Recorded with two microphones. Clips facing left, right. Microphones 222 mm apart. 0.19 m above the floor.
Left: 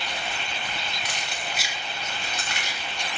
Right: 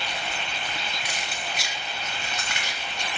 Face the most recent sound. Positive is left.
turn(degrees=45)  # may be behind; listen again after turning